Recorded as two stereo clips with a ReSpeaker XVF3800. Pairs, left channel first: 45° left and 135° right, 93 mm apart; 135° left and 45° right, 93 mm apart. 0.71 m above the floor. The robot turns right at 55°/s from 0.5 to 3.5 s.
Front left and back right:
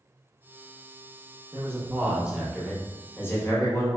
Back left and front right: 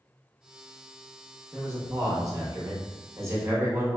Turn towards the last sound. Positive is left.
turn(degrees=5)